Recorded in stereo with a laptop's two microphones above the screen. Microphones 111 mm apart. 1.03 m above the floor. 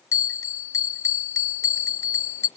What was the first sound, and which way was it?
A bell, 25° left (ahead or behind).